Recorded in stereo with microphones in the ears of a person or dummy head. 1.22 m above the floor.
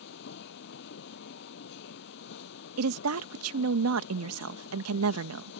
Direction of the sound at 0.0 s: 65° left (ahead or behind).